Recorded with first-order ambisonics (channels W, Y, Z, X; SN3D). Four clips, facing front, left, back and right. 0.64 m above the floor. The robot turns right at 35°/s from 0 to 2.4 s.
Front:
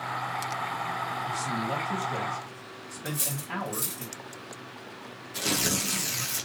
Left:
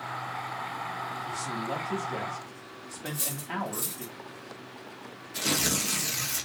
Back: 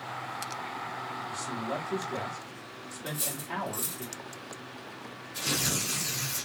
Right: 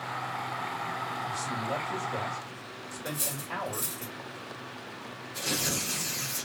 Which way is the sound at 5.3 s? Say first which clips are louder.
Left 3 dB, front 2 dB; 45° left.